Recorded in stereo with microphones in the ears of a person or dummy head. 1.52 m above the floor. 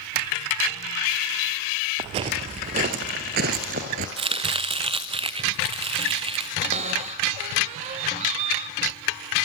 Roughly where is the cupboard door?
Right.